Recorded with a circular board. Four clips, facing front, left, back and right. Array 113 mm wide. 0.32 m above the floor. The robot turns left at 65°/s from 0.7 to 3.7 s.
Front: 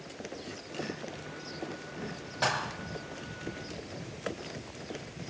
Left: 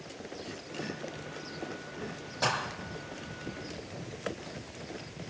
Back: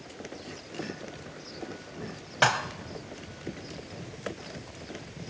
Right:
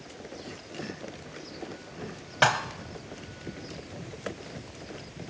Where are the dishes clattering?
125° right, 1.3 m; by 2.6 s 135° right, 1.3 m.